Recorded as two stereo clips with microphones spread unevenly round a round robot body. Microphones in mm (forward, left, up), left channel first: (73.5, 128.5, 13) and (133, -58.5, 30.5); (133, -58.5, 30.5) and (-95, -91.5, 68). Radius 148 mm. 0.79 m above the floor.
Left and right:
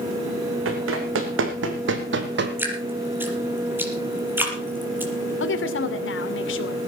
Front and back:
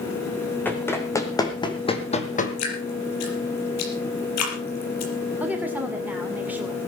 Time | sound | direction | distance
0.7 | running footsteps | 75° right | 3.5 m
2.6 | dripping | 5° left | 5.5 m
5.4 | a woman speaking | 100° left | 2.5 m